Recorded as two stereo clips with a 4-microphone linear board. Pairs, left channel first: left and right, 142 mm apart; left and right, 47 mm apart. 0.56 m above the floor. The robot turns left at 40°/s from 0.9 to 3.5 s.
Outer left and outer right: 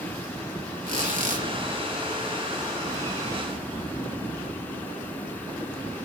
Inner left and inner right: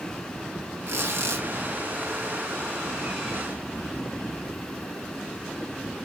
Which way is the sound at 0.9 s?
70° right (ahead or behind).